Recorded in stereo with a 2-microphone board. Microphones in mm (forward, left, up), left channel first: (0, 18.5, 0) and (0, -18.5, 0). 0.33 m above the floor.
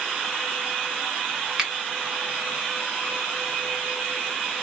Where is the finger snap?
15° right (ahead or behind), 0.8 m.